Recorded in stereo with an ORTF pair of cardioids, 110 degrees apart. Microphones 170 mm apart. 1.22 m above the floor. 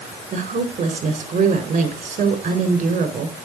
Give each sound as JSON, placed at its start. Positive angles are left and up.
{"t": 0.3, "sound": "a woman speaking", "azimuth_deg": -50, "distance_m": 5.0}